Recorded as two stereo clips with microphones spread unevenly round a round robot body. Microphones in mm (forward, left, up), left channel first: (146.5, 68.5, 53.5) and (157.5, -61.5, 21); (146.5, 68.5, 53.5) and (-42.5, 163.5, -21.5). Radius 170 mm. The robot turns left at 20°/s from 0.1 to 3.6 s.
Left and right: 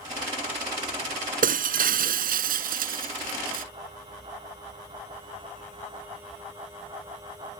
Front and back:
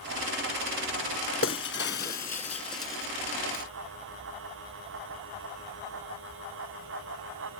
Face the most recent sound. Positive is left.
turn(degrees=-120)